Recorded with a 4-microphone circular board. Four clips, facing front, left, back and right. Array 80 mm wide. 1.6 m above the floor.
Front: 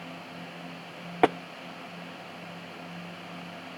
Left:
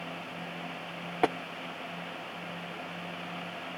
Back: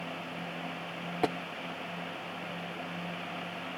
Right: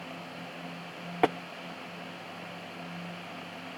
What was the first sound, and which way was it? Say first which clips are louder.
Tapping: right 2 dB, front 8 dB; 5° right.